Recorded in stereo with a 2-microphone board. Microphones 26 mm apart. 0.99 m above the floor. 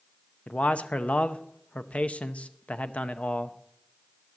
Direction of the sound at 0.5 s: 55° left (ahead or behind).